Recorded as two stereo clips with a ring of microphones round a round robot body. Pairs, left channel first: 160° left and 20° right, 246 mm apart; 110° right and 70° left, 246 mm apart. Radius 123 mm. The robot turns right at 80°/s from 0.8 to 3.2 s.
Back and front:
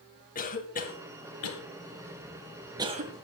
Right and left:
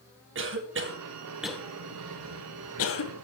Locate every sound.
0.3 s a cough: 105° left, 2.5 m; by 3.1 s 70° right, 2.5 m